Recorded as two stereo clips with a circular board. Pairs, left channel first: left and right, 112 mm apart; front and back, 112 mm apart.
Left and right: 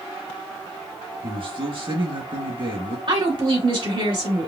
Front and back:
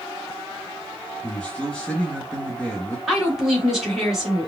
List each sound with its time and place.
1.2 s a man speaking: 75° right, 2 m
3.1 s a woman speaking: 95° right, 2.5 m